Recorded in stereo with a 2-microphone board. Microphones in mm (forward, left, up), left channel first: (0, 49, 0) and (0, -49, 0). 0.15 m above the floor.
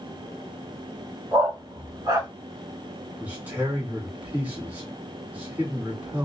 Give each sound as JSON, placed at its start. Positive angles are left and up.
{"t": 1.3, "sound": "a dog barking", "side_deg": -40, "distance_m": 1.6}
{"t": 3.2, "sound": "a man speaking", "side_deg": -15, "distance_m": 1.6}